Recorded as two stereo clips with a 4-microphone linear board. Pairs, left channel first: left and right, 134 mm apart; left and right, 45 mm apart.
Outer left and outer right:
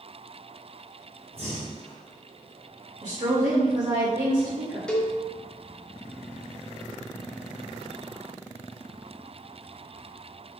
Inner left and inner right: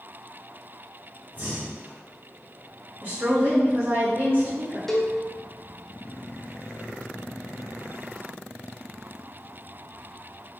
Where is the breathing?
45° right (ahead or behind), 1.0 m.